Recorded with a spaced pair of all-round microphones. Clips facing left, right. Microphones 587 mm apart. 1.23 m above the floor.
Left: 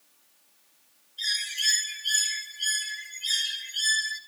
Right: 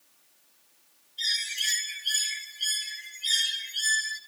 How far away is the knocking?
No knocking in this recording.